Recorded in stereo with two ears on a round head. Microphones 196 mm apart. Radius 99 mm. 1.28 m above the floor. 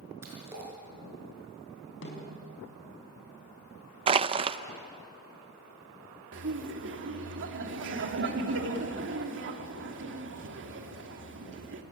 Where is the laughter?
60° right (ahead or behind), 3 m.